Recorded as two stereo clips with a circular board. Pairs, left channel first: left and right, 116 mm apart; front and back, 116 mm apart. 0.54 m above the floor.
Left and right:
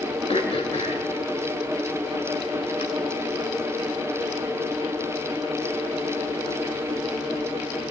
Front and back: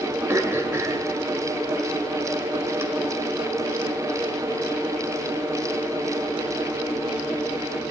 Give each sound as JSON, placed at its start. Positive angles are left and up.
{"t": 0.3, "sound": "throat clearing", "azimuth_deg": 115, "distance_m": 1.6}